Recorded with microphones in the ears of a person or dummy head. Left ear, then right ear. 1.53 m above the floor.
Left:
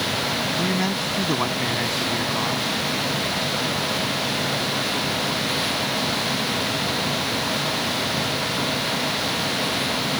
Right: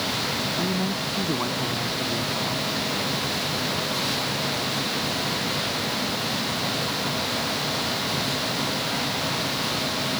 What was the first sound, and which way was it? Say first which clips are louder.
A man speaking: left 3 dB; 60° left (ahead or behind).